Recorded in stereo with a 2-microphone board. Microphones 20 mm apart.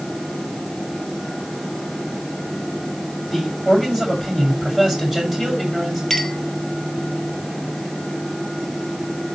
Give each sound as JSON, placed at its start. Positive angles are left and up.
{"t": 3.3, "sound": "a man speaking", "side_deg": -15, "distance_m": 7.0}
{"t": 6.1, "sound": "a clink", "side_deg": 15, "distance_m": 1.6}